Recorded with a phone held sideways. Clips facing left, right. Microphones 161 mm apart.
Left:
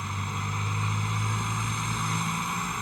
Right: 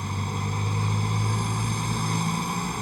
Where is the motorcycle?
35° right (ahead or behind).